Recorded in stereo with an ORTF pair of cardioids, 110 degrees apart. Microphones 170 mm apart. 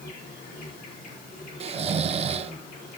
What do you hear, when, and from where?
0.0 s an insect: 60° left, 4.5 m
1.6 s snoring: 40° right, 0.9 m